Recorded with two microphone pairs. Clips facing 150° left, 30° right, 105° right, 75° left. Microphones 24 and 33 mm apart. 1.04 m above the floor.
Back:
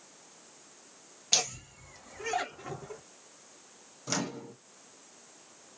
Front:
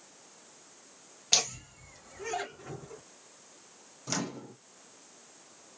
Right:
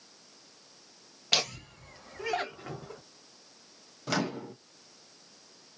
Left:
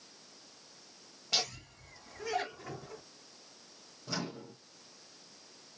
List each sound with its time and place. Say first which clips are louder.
1.3 s laughter: front 1 dB, right 6 dB; 110° right, 1.1 m; by 3.0 s 160° right, 1.5 m
4.1 s a microwave: back 1 dB, right 8 dB; 125° right, 0.5 m